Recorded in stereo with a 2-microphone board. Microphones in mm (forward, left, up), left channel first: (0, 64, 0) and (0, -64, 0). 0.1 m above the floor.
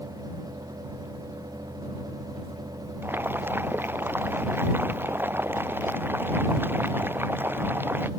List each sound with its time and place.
3.0 s boiling: 15° right (ahead or behind)